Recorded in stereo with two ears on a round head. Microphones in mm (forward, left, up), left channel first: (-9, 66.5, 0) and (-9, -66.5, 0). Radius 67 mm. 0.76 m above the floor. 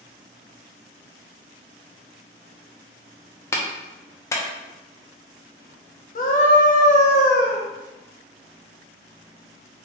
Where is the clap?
20° left (ahead or behind), 0.5 m.